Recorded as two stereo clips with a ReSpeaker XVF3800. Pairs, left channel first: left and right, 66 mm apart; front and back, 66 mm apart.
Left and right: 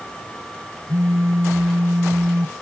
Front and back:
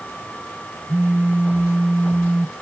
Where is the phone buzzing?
120° right.